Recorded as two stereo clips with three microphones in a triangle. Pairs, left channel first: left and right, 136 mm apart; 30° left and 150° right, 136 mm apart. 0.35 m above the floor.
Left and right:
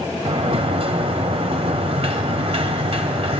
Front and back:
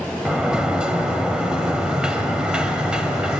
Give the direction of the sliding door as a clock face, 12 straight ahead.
2 o'clock.